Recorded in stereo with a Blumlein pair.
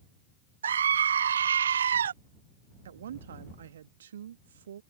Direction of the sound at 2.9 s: 65° right.